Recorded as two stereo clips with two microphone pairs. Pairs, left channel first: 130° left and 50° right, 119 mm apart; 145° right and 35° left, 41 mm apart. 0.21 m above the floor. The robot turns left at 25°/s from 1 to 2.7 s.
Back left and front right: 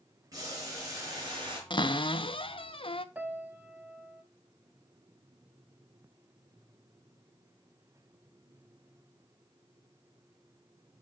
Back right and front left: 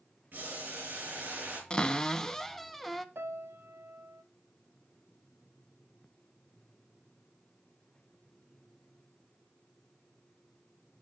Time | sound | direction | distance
0.3 | boiling | 5° left | 4 m
1.7 | a cupboard door | 155° left | 0.5 m
3.1 | a piano | 25° left | 0.8 m